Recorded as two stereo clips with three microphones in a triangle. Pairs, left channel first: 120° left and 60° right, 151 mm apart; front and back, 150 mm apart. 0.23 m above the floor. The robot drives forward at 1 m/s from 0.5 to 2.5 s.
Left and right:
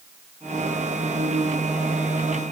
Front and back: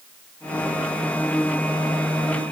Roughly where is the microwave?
No microwave in this recording.